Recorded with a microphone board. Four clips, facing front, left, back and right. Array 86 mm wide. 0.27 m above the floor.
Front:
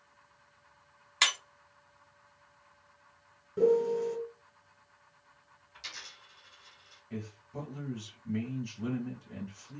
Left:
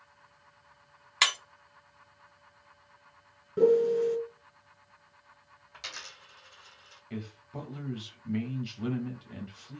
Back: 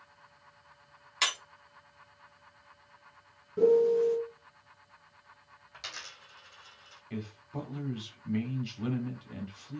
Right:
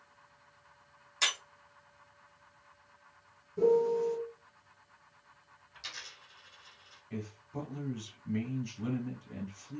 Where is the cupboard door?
I don't hear a cupboard door.